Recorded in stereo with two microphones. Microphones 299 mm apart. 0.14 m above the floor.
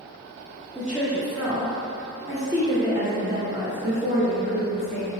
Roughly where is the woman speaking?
Centre.